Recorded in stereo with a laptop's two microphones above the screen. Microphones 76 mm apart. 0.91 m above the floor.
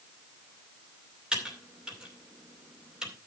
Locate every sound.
1.3 s typing on a keyboard: 10° right (ahead or behind), 2.5 m